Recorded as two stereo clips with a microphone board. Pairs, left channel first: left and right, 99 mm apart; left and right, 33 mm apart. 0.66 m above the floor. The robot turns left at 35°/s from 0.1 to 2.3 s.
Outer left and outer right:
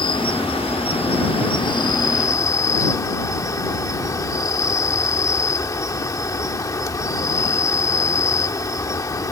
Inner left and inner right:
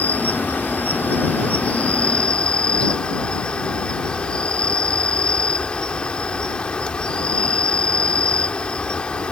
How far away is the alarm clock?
I don't hear an alarm clock.